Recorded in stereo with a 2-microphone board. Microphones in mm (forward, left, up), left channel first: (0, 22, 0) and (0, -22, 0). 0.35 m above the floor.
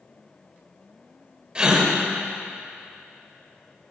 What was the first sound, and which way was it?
A gasp, 20° right (ahead or behind).